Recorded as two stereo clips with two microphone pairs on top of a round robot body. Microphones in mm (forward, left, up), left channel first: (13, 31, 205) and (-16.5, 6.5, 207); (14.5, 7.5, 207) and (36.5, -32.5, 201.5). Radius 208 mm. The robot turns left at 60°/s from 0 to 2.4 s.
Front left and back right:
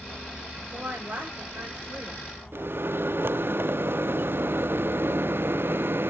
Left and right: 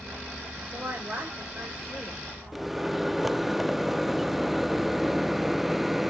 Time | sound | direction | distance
0.7 | a woman speaking | 85° right | 7.5 m
2.5 | a microwave | 140° right | 0.6 m